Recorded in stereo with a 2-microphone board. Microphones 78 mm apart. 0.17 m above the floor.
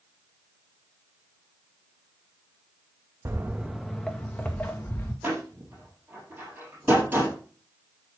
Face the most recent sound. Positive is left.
turn(degrees=-25)  # may be behind; listen again after turning